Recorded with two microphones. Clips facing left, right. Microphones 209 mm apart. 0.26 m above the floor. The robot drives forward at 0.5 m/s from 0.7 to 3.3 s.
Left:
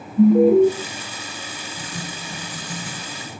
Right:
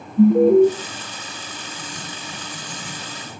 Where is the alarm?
10° right (ahead or behind), 1.3 m.